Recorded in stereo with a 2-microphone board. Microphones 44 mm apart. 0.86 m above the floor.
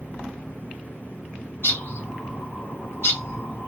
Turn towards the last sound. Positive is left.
turn(degrees=60)  # may be behind; listen again after turning